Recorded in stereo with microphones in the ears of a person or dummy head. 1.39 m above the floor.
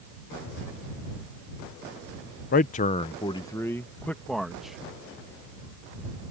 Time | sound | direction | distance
2.5 | a man speaking | 45° left (ahead or behind) | ?